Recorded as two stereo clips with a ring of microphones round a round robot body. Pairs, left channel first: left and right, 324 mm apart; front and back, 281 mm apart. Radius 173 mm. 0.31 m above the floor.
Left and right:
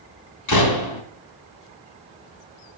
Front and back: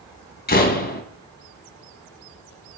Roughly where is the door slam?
Ahead left.